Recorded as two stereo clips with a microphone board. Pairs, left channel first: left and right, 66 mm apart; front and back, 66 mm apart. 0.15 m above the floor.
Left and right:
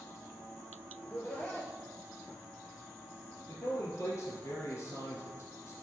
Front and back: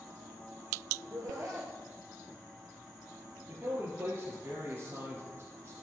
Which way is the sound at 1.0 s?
155° left.